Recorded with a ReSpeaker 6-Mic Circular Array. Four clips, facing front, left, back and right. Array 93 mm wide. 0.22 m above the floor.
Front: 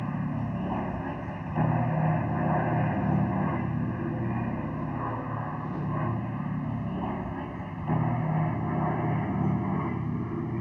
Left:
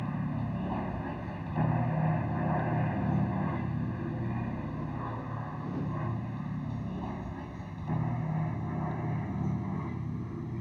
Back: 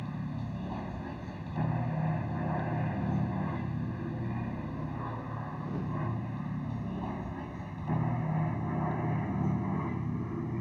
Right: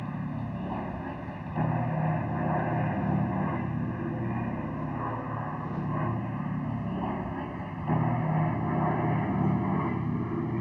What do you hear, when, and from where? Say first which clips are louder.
0.0 s an aircraft: even, front 7 dB; 5° right; by 10.6 s 65° right